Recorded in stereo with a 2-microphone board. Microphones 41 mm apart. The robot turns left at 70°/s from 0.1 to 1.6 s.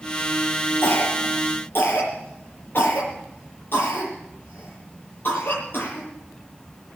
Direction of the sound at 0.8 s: 60° left (ahead or behind).